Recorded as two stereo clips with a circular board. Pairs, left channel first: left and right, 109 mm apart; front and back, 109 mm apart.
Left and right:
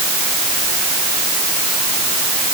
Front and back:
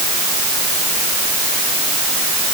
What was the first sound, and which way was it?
Only background noise.